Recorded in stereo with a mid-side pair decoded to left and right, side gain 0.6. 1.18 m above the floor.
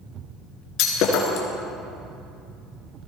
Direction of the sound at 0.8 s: 65° left.